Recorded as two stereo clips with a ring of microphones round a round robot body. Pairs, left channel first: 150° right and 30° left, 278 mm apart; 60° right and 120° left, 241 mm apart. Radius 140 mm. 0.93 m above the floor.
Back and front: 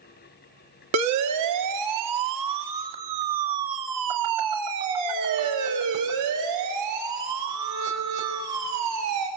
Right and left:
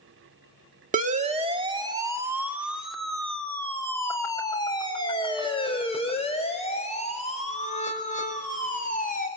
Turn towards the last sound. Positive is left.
turn(degrees=-5)